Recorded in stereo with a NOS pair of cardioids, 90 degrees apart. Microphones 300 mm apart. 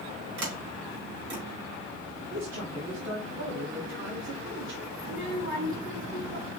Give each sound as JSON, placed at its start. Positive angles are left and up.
{"t": 0.4, "sound": "a sliding door", "azimuth_deg": -65, "distance_m": 3.0}
{"t": 2.3, "sound": "a man speaking", "azimuth_deg": -60, "distance_m": 1.9}
{"t": 5.0, "sound": "a child speaking", "azimuth_deg": -45, "distance_m": 1.5}